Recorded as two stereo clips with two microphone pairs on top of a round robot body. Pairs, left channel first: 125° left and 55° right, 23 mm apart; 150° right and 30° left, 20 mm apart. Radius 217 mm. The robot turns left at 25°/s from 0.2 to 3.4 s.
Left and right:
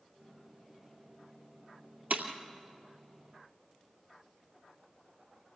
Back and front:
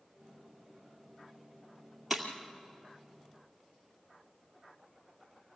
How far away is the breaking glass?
About 2.5 m.